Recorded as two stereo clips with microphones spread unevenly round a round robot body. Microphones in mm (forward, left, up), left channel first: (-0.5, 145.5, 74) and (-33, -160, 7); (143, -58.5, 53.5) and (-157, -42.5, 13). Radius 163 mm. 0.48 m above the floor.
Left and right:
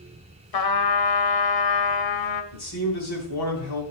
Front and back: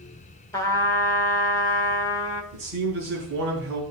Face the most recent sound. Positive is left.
turn(degrees=125)